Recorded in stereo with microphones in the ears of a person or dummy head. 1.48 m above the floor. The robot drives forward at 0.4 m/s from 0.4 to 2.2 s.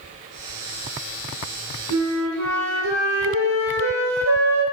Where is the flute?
85° right, 0.8 m; by 4.6 s 75° right (ahead or behind), 0.8 m.